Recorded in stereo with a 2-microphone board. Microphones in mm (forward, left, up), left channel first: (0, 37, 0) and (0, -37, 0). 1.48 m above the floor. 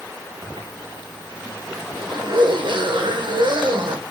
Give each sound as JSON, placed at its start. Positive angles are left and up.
{"t": 0.4, "sound": "a zipper", "side_deg": -75, "distance_m": 1.5}